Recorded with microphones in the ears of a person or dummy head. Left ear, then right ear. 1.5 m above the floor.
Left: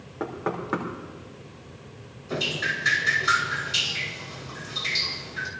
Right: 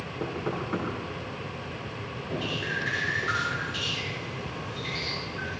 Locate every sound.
0.2 s knocking: 45° left (ahead or behind), 3 m
2.3 s dripping: 80° left, 6 m